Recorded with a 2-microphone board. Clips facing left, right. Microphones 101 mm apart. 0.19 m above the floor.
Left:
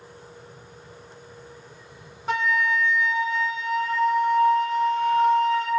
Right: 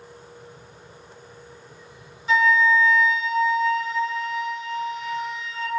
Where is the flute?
65° left (ahead or behind), 0.6 m.